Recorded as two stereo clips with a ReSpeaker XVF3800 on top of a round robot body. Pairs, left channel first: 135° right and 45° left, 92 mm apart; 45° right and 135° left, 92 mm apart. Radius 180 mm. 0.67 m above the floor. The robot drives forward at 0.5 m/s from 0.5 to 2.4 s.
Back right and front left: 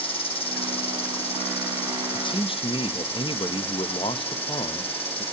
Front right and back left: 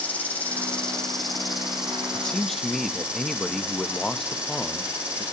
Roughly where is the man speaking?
Behind right.